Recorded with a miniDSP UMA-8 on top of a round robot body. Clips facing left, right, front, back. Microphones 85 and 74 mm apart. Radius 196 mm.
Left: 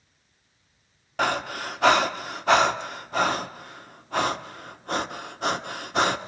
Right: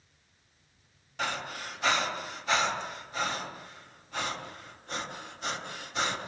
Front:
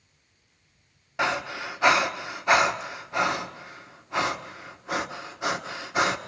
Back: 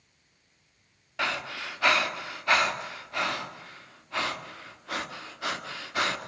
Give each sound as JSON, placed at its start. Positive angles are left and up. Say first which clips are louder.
{"t": 1.2, "sound": "breathing", "louder": "left 9 dB, front 5 dB", "azimuth_deg": 70, "distance_m": 1.4}